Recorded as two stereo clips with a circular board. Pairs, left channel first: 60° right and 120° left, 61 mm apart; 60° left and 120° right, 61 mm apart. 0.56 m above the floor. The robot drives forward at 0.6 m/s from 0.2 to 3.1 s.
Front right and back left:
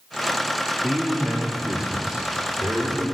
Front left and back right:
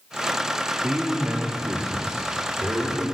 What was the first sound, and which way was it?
A man speaking, 155° right.